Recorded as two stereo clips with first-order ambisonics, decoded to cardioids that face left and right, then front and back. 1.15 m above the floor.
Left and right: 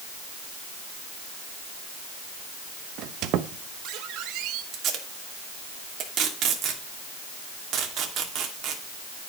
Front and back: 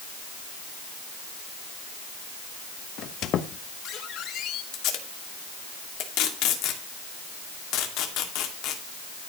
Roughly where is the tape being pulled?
Ahead right.